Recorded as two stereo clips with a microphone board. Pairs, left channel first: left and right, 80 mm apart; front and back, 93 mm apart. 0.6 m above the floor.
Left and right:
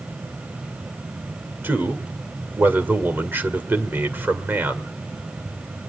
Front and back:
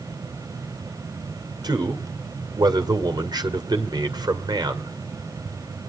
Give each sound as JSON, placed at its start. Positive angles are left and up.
{"t": 1.6, "sound": "a man speaking", "azimuth_deg": -150, "distance_m": 1.9}